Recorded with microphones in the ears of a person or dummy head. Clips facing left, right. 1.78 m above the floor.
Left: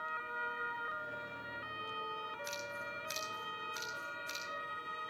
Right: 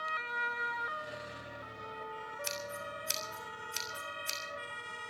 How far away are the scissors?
About 3.5 m.